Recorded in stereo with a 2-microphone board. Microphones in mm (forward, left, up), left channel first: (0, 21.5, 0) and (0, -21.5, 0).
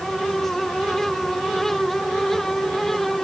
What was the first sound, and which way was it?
Only background noise.